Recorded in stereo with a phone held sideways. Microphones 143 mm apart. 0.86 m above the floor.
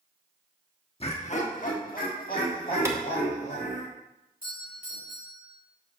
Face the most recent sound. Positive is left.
turn(degrees=75)  # may be behind; listen again after turning